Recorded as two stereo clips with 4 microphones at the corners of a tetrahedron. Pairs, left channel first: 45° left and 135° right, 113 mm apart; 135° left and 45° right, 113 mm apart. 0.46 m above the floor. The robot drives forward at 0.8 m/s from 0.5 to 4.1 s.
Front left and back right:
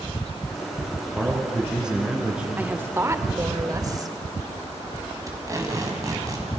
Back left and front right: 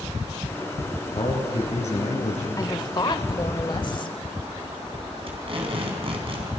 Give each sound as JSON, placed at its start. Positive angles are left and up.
{"t": 1.1, "sound": "a man speaking", "azimuth_deg": 135, "distance_m": 5.0}
{"t": 2.6, "sound": "a woman speaking", "azimuth_deg": 155, "distance_m": 1.1}
{"t": 5.3, "sound": "tape being pulled", "azimuth_deg": -80, "distance_m": 4.5}